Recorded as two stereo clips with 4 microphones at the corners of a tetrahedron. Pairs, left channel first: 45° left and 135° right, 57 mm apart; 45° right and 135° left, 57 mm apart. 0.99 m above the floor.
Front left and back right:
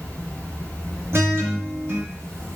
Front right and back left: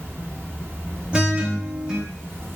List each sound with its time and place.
0.0 s an insect: 120° right, 1.0 m
1.1 s a guitar: 155° right, 0.6 m